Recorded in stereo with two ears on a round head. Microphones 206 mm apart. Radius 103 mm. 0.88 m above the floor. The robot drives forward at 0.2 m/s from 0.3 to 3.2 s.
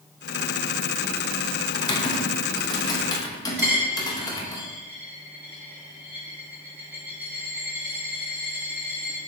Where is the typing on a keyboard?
20° left (ahead or behind), 0.6 m; by 4.6 s 15° left (ahead or behind), 0.8 m.